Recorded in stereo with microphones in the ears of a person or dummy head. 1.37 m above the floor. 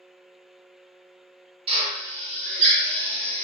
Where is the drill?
35° right (ahead or behind), 0.9 m.